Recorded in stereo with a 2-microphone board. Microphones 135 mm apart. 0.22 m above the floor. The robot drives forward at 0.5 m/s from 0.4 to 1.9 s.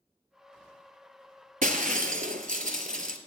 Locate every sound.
1.6 s breaking glass: 85° right, 0.8 m